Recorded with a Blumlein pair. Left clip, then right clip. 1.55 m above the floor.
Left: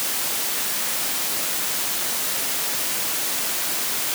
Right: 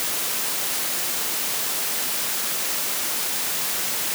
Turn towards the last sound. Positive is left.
No sound to turn to.